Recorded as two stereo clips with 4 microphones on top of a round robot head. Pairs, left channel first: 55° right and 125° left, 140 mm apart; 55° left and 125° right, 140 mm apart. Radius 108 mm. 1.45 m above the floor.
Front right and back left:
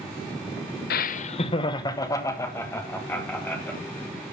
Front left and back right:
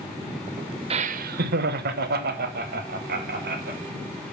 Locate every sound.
0.9 s laughter: 75° right, 0.5 m; by 3.8 s 135° right, 2.5 m